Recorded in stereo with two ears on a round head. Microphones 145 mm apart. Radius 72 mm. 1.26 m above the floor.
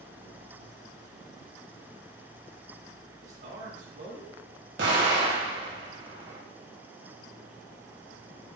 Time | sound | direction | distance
3.2 | a man speaking | 75° right (ahead or behind) | 2.5 m
4.8 | an explosion | 80° right | 3 m